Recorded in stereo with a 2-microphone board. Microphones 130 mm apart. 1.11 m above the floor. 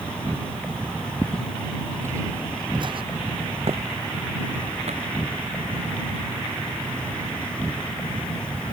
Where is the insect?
10° left (ahead or behind).